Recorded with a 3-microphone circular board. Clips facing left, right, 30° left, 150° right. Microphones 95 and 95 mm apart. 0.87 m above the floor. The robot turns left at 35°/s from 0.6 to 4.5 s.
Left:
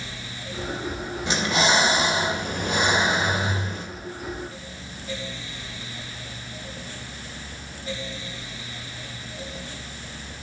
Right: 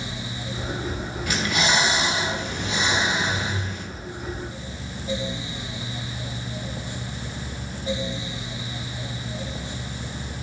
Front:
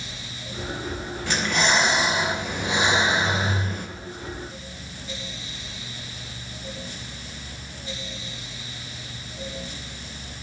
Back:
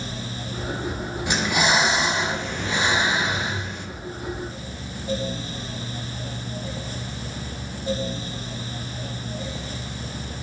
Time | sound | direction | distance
1.3 | breathing | 145° left | 0.8 m